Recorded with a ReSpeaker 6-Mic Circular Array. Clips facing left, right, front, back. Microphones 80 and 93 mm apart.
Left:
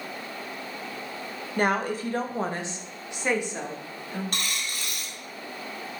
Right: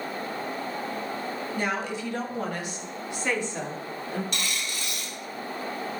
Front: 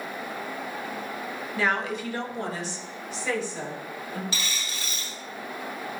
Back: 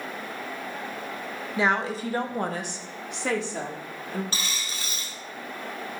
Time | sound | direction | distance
1.6 | a woman speaking | 110° left | 1.0 m
4.3 | a dropped coin | 130° left | 3 m